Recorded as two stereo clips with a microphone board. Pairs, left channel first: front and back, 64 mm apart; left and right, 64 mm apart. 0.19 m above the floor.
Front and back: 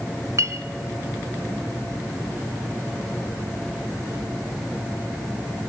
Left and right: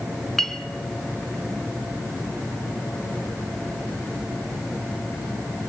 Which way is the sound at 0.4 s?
175° left.